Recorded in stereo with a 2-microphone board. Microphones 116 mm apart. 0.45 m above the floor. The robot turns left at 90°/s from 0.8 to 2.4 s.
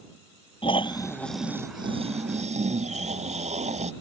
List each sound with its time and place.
0.6 s snoring: 50° left; by 3.9 s 95° right